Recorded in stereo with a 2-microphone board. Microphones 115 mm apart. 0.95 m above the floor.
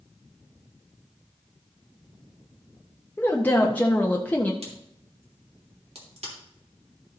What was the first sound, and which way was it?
A woman speaking, 15° left (ahead or behind).